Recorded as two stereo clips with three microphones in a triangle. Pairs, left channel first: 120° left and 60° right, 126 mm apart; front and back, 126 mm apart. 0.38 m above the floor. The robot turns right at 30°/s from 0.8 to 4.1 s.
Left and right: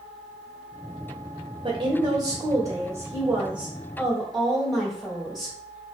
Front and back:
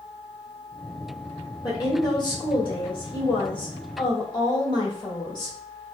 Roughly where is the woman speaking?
Ahead right.